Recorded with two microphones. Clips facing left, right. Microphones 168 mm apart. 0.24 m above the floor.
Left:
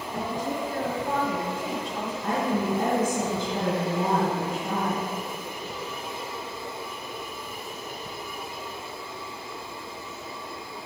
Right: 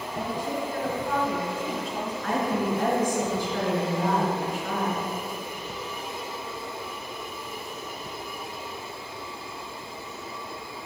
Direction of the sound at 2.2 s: 35° left (ahead or behind).